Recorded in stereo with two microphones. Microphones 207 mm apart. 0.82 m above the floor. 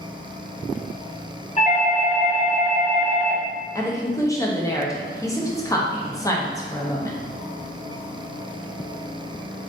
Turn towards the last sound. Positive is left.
turn(degrees=15)  # may be behind; listen again after turning